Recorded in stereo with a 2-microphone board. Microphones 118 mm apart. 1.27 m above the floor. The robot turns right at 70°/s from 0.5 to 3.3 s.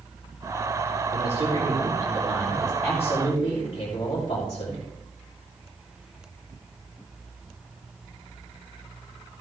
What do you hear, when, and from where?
1.1 s a man speaking: 110° right, 4 m; by 4.8 s 45° left, 4 m